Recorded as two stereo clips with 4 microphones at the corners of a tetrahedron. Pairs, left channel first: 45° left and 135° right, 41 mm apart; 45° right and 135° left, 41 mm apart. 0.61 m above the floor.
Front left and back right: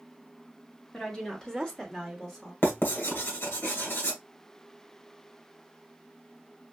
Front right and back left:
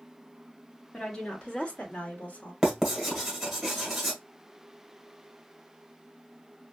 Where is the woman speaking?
5° left, 1.3 m; by 2.5 s 40° right, 1.6 m.